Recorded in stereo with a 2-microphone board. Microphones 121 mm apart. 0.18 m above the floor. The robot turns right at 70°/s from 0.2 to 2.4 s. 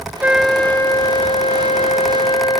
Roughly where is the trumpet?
Ahead.